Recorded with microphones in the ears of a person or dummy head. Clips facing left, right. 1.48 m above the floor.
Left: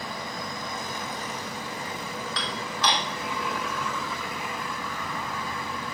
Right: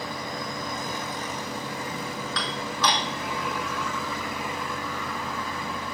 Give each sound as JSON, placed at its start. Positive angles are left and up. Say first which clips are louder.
{"t": 2.4, "sound": "dishes clattering", "louder": "right 2 dB", "side_deg": -75, "distance_m": 1.9}